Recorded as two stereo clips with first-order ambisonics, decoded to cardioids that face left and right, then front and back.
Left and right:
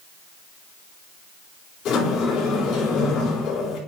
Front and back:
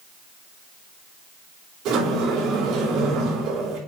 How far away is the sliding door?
About 4.5 m.